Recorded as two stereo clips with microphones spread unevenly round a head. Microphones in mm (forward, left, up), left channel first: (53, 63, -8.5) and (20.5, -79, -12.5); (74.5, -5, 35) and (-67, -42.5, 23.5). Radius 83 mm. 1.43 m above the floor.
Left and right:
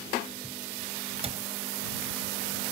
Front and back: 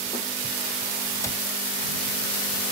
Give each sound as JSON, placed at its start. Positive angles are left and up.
{"t": 1.2, "sound": "a cupboard door", "azimuth_deg": -55}